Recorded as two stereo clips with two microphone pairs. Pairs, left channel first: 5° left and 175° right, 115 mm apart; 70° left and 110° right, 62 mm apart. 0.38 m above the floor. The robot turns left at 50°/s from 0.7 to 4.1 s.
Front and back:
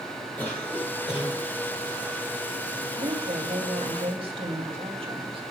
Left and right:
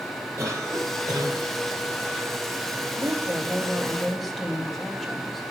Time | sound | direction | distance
0.4 | a cough | 70° right | 8.5 m
3.0 | a woman speaking | 145° right | 2.5 m